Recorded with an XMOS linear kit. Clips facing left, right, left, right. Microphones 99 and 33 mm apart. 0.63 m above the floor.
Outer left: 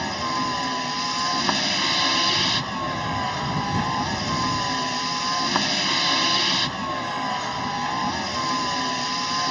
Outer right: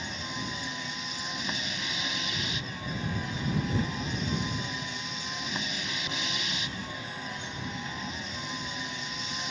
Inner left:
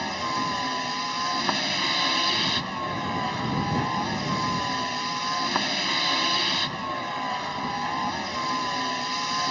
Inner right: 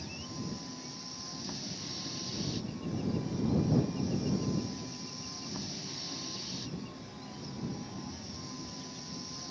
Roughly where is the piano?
I don't hear a piano.